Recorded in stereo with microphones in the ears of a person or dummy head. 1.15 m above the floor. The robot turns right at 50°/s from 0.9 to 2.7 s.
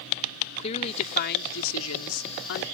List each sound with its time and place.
0.6 s a woman speaking: 35° left; by 2.6 s 120° left